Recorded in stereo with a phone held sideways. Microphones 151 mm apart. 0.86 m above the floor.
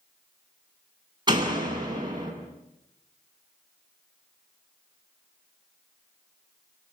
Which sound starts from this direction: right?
A door slam, at 1.3 s.